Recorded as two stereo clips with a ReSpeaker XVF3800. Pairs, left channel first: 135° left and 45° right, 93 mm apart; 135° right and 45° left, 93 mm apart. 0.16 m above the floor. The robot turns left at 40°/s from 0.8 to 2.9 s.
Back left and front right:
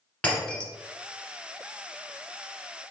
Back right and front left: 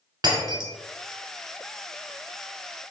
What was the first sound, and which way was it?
Breaking glass, 60° left.